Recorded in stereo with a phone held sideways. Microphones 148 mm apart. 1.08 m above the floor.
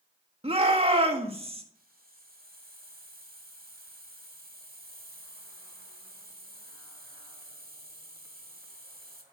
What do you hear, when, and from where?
0.4 s a shout: 40° right (ahead or behind), 1.8 m
1.8 s a hiss: 85° right, 2 m